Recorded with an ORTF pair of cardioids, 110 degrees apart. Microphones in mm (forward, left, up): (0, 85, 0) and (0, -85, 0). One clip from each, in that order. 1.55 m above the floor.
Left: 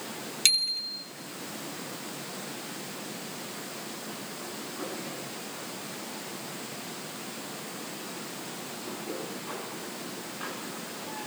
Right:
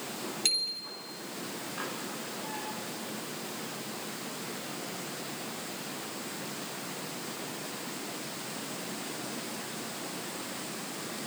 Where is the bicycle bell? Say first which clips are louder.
Left 6 dB; 55° left, 3 m.